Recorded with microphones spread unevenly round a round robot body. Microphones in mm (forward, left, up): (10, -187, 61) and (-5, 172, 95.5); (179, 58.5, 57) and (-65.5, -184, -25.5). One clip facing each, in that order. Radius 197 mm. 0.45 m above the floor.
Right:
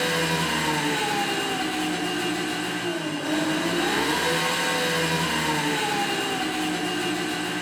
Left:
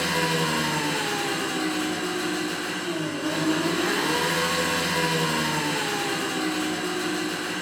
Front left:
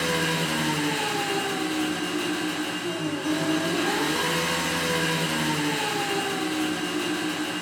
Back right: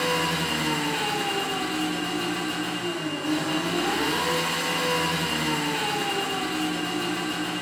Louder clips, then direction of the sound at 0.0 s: Even, even; 80° left.